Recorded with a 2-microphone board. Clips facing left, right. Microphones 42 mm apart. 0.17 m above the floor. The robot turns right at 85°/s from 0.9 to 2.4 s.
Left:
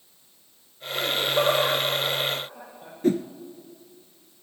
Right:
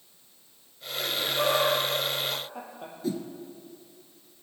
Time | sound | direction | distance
0.9 | laughter | 75° left (ahead or behind) | 6.5 m
3.0 | a whoosh | 50° left (ahead or behind) | 0.8 m